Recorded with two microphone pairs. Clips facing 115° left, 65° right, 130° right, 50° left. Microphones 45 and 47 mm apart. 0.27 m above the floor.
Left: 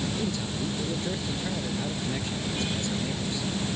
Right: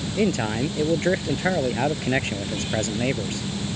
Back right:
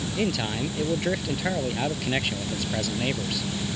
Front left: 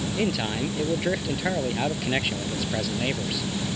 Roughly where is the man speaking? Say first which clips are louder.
Right 8 dB, even; ahead right.